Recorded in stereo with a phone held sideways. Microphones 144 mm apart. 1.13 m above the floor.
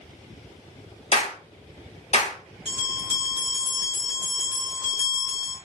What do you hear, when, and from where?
1.1 s a clap: 50° left (ahead or behind), 2.5 m
2.6 s a bell: 40° left (ahead or behind), 2 m